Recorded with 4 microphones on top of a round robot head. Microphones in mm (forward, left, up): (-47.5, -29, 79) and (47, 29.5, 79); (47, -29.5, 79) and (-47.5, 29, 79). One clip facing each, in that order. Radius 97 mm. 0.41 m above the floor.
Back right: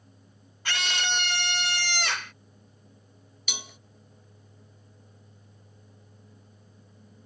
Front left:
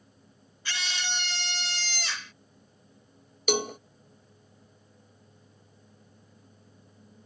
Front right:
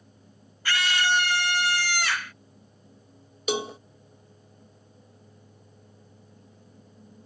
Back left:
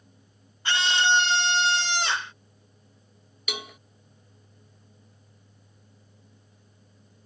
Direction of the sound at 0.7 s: 150° right.